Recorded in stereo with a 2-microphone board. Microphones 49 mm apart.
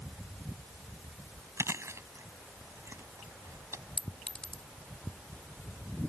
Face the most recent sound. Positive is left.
turn(degrees=20)  # may be behind; listen again after turning